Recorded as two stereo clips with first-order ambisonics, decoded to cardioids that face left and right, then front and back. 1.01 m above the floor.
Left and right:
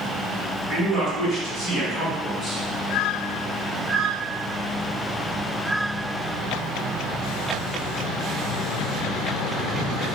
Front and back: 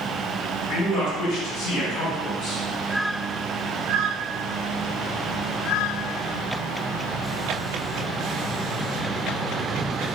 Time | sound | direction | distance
0.7 | a man speaking | 20° left | 1.3 m